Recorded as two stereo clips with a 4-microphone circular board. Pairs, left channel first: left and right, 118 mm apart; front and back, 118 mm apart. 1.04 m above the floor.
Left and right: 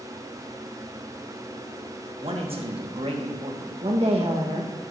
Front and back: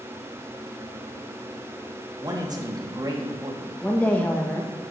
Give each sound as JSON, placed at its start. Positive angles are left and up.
{"t": 2.2, "sound": "a man speaking", "azimuth_deg": -125, "distance_m": 1.2}
{"t": 3.8, "sound": "a woman speaking", "azimuth_deg": -70, "distance_m": 1.2}